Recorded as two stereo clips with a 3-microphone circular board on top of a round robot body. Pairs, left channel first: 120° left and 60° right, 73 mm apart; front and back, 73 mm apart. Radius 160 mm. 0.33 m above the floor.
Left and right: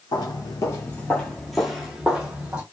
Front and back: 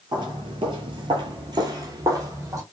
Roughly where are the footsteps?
Behind left.